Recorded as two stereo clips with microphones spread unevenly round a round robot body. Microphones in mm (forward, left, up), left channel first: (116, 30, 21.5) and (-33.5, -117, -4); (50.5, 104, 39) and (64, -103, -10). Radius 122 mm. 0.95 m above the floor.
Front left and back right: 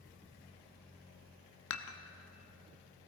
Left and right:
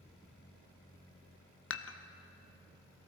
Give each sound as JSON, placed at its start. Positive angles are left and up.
{"t": 1.7, "sound": "dishes clattering", "azimuth_deg": 75, "distance_m": 0.7}